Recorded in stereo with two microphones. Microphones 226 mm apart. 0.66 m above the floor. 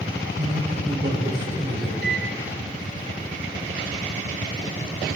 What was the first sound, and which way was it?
A man speaking, 40° right (ahead or behind).